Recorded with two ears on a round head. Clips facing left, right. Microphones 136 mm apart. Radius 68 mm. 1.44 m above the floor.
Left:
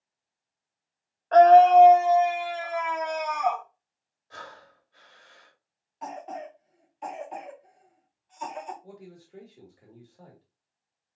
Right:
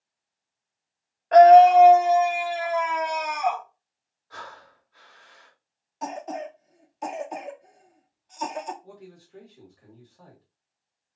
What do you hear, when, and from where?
1.3 s a scream: 15° right (ahead or behind), 0.6 m
4.3 s breathing: 25° left (ahead or behind), 2 m
6.0 s a cough: 50° right (ahead or behind), 0.6 m
8.8 s a man speaking: 30° left (ahead or behind), 1.6 m